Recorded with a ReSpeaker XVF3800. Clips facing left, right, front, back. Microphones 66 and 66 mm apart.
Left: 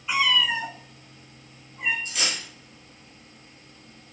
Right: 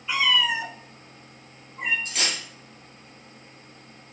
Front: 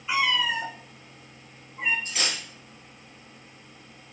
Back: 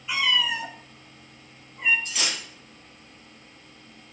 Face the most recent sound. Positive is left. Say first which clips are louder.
# right 1 dB, even
turn(degrees=-55)